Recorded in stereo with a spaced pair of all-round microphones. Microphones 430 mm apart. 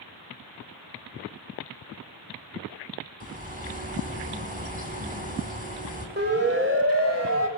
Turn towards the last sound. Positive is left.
turn(degrees=-35)  # may be behind; listen again after turning